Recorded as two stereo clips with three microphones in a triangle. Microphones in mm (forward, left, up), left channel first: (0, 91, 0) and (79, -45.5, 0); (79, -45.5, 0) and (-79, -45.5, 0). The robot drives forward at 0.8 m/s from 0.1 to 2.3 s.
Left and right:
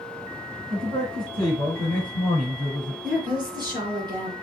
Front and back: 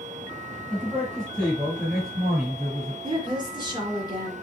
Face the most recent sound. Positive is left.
turn(degrees=-120)